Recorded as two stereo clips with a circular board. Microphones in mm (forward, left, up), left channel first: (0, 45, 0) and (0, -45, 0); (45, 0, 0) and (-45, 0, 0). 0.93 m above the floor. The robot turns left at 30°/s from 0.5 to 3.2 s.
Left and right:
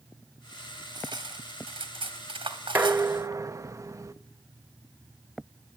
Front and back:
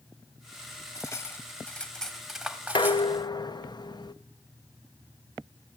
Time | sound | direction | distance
0.9 | cutlery clinking | 50° right | 1.1 m
2.8 | dishes clattering | 25° right | 0.6 m